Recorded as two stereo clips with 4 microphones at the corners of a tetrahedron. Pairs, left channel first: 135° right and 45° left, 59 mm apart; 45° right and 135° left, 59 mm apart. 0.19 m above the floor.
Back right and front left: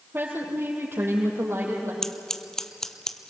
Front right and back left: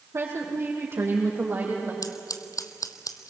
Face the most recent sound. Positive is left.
turn(degrees=-55)